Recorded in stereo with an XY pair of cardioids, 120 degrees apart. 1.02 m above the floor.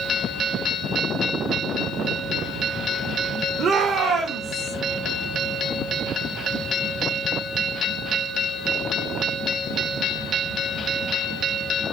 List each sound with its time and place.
3.6 s a shout: 40° right, 0.8 m; by 4.7 s 55° right, 1.7 m